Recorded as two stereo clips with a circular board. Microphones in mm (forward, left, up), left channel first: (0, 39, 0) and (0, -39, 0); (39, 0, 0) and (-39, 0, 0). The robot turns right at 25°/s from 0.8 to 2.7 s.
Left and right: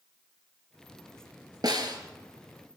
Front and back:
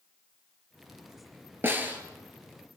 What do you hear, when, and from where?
1.6 s a snare drum: 120° right, 4.5 m; by 2.0 s 110° right, 4.5 m